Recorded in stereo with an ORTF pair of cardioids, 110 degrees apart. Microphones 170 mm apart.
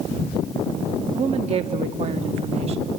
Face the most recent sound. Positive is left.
turn(degrees=-40)